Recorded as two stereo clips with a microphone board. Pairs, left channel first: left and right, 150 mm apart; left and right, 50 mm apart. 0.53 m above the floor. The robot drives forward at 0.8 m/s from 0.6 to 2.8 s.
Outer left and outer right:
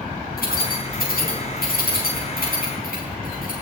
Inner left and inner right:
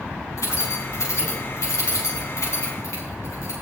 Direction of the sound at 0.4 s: 80° left.